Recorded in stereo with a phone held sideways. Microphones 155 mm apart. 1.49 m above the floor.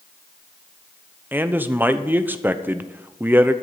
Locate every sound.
1.3 s a man speaking: 10° right (ahead or behind), 0.8 m